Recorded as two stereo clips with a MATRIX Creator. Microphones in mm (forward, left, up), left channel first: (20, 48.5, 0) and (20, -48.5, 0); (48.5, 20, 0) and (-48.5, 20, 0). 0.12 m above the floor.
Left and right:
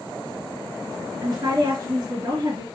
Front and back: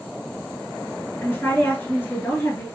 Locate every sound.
1.2 s a woman speaking: 65° right, 2 m